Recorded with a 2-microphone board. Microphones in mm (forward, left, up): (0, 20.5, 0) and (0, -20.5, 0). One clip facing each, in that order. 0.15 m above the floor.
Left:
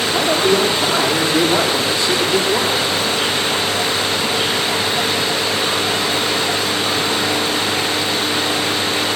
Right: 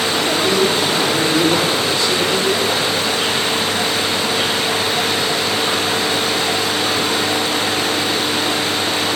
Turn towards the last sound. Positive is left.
turn(degrees=20)  # may be behind; listen again after turning